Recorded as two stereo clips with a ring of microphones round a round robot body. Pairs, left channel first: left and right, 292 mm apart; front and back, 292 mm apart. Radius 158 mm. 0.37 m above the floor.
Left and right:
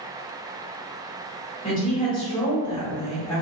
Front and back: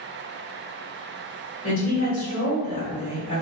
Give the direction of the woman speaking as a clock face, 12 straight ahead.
11 o'clock.